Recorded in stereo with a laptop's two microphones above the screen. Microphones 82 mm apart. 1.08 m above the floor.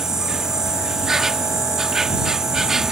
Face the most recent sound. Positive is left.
turn(degrees=-5)  # may be behind; listen again after turning